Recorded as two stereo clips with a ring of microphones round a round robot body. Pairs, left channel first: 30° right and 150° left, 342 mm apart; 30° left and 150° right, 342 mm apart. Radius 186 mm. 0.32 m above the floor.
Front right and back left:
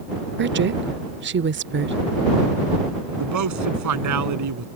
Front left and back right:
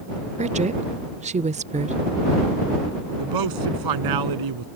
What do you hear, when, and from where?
0.4 s a woman speaking: 160° left
3.2 s a man speaking: 170° right